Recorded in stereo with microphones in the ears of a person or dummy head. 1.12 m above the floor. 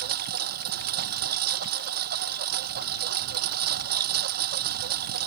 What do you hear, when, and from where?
0.0 s a lawn mower: 60° right (ahead or behind)